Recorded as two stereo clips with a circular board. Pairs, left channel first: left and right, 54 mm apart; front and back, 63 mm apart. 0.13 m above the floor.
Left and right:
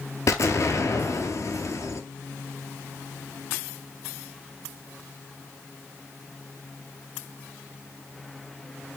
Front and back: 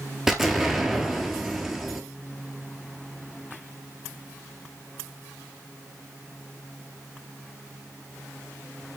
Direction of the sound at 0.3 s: 95° left.